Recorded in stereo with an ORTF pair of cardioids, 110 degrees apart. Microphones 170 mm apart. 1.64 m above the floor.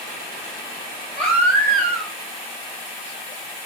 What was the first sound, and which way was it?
A baby crying, 5° left.